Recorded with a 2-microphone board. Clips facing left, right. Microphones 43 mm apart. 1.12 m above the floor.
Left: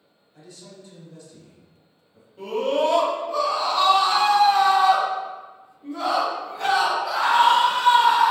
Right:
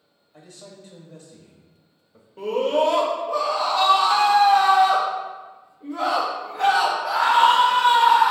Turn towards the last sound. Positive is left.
turn(degrees=-60)  # may be behind; listen again after turning